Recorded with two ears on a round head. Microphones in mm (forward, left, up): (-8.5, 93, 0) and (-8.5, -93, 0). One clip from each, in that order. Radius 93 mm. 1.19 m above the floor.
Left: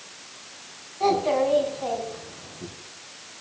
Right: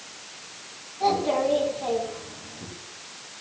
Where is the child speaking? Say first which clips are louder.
Left 1 dB; 85° left, 5.5 m.